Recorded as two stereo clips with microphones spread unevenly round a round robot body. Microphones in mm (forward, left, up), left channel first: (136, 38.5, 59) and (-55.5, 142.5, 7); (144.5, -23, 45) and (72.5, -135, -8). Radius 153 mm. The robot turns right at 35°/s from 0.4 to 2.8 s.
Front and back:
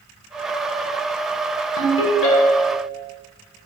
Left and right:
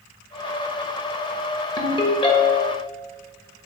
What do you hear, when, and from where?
1.8 s a ringtone: 10° right, 1.5 m; by 2.8 s 25° left, 1.5 m